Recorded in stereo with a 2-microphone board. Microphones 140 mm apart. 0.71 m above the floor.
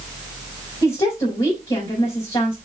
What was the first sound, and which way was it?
A woman speaking, 40° left (ahead or behind).